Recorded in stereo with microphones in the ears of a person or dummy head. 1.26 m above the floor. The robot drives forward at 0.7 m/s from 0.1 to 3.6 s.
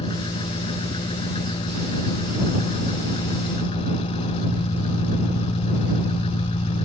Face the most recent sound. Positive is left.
turn(degrees=30)  # may be behind; listen again after turning